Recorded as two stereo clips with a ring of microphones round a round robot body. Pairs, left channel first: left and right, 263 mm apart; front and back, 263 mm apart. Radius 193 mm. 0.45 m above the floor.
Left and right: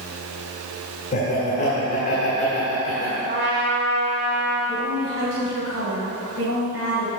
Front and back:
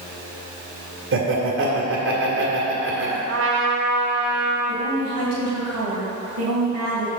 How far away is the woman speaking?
About 3 m.